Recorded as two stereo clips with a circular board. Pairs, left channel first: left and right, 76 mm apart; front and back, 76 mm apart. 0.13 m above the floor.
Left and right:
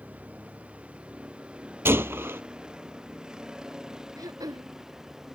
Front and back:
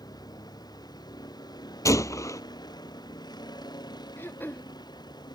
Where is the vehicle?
20° right; by 5.3 s 5° right.